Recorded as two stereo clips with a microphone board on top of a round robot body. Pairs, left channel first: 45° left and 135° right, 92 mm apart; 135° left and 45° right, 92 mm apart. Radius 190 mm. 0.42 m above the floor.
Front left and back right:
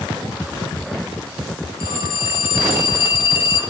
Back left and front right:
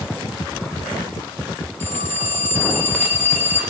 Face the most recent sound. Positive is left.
turn(degrees=65)